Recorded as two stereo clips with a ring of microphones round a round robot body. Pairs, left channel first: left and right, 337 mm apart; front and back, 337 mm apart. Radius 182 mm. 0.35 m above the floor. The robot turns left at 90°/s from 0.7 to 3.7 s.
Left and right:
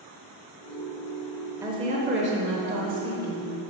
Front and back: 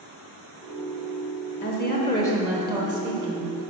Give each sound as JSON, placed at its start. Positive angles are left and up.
{"t": 1.6, "sound": "a woman speaking", "azimuth_deg": -15, "distance_m": 1.1}